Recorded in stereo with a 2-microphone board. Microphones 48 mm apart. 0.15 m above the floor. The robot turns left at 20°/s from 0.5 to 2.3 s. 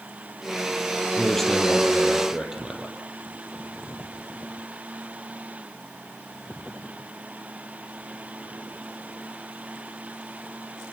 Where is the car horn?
No car horn in this recording.